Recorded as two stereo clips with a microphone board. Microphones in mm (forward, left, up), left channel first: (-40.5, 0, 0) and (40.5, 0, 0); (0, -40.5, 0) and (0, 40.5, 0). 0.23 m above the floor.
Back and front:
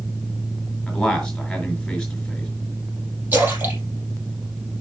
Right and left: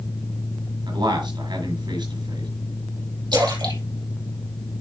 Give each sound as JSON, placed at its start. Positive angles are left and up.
{"t": 0.9, "sound": "a man speaking", "azimuth_deg": 100, "distance_m": 4.5}
{"t": 3.3, "sound": "a splash", "azimuth_deg": 65, "distance_m": 5.0}